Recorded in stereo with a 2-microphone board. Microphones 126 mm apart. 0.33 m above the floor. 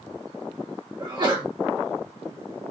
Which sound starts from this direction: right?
A sneeze, at 1.0 s.